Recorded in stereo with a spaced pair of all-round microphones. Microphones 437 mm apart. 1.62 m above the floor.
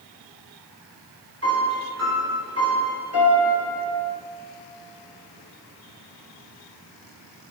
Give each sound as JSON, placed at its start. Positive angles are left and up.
{"t": 1.4, "sound": "a piano", "side_deg": -35, "distance_m": 2.0}